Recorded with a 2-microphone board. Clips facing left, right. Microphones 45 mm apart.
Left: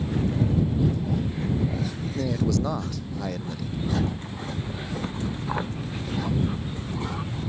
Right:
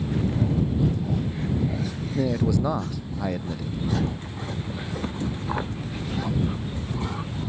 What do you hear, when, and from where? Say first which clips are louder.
2.1 s a man speaking: right 2 dB; 10° right (ahead or behind)